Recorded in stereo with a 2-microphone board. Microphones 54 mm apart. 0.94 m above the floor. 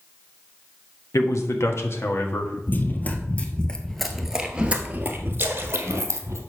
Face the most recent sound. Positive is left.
turn(degrees=-45)  # may be behind; listen again after turning